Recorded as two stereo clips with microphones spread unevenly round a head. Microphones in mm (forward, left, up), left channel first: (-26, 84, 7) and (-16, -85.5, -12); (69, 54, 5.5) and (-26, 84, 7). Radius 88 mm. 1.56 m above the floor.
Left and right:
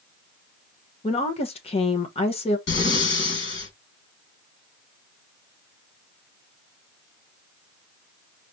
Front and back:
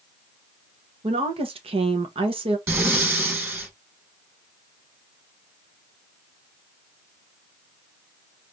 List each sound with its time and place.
1.0 s a woman speaking: 145° left, 1.0 m
2.7 s breathing: 100° left, 3.5 m